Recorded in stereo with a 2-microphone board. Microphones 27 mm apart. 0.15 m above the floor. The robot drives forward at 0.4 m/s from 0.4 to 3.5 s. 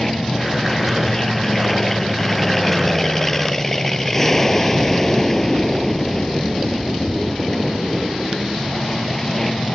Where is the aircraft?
15° left (ahead or behind).